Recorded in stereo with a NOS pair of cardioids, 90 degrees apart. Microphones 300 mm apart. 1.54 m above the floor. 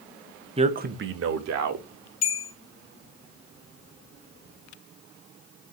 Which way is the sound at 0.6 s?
20° right.